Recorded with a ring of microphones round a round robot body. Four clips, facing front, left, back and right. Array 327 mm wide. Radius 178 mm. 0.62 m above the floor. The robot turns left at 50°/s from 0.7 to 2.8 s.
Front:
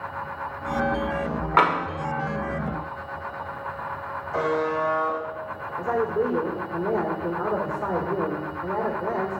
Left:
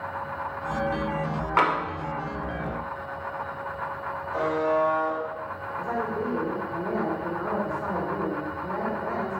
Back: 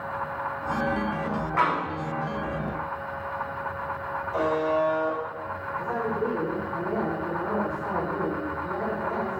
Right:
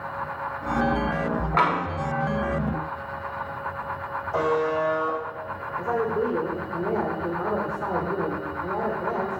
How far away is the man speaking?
About 2.0 m.